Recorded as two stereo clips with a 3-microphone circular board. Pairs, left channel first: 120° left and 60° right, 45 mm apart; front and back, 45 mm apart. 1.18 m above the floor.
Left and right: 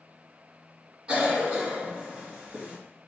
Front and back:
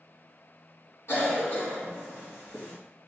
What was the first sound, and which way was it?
A cough, 10° left.